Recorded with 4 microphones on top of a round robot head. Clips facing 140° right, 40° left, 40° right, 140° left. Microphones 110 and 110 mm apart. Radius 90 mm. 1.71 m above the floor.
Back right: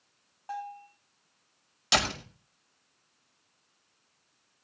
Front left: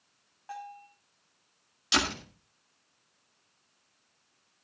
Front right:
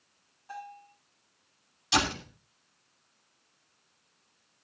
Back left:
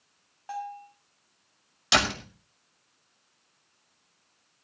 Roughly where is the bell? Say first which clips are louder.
Back right 4 dB, back left 7 dB; behind left.